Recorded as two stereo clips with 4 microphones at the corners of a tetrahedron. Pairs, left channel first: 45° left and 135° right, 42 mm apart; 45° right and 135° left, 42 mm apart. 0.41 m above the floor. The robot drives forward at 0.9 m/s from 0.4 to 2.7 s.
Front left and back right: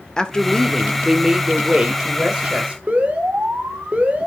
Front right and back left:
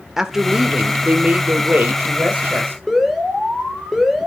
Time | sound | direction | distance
0.2 | a woman speaking | 75° left | 1.3 m
2.9 | an alarm | 140° right | 2 m